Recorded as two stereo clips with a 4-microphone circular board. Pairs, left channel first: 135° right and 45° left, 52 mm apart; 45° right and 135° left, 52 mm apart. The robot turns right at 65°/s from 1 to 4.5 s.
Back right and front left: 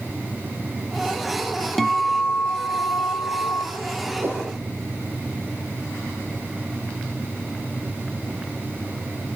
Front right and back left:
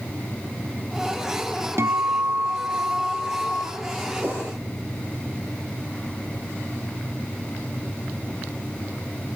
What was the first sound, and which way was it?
A guitar, 140° left.